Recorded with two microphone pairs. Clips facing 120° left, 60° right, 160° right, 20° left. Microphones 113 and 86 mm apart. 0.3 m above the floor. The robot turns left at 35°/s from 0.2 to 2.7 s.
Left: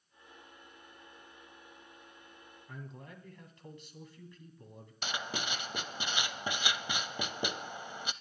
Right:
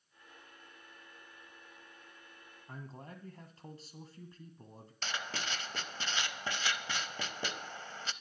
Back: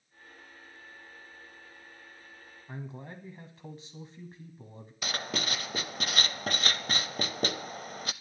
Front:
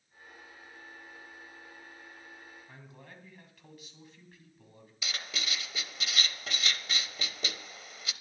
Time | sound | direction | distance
2.7 | a man speaking | 105° right | 1.9 m
5.0 | writing | 165° right | 0.6 m